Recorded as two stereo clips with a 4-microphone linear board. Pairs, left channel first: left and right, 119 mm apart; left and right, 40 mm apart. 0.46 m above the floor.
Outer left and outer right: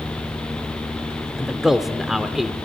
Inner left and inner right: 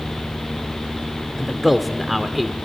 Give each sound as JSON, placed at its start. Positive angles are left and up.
{"t": 1.4, "sound": "a man speaking", "side_deg": -5, "distance_m": 0.9}